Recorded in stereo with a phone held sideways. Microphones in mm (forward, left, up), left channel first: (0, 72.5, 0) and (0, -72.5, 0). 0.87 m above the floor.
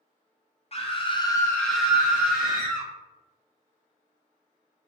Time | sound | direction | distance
0.7 | a scream | 45° left (ahead or behind) | 0.6 m